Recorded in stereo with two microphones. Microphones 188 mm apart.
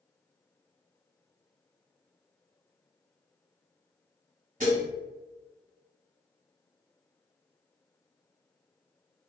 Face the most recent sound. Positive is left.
turn(degrees=-40)  # may be behind; listen again after turning